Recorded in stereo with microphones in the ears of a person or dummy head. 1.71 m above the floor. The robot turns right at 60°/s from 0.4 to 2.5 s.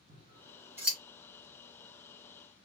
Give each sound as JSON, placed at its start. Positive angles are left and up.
{"t": 0.1, "sound": "scissors", "side_deg": -35, "distance_m": 2.5}